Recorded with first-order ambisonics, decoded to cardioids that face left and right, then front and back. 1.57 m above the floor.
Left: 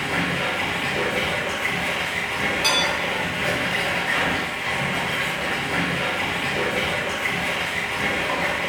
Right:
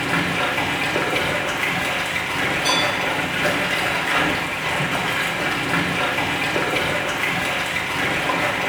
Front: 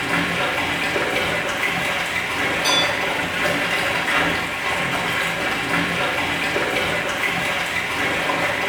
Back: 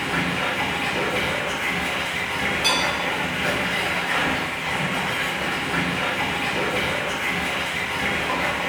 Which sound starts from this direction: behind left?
Dishes clattering, at 2.6 s.